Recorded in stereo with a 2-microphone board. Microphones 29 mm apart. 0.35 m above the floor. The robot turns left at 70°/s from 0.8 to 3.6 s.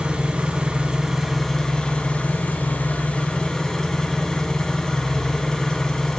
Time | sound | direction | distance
0.0 | an engine running | 140° right | 1.0 m